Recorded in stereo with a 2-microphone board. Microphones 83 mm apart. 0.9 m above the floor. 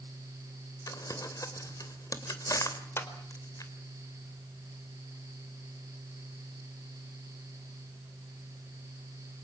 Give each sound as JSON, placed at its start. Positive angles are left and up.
{"t": 0.9, "sound": "crumpling", "side_deg": 45, "distance_m": 3.0}
{"t": 3.0, "sound": "a clap", "side_deg": 30, "distance_m": 3.5}